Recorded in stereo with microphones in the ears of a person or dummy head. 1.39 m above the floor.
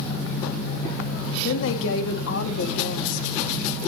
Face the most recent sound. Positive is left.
turn(degrees=60)  # may be behind; listen again after turning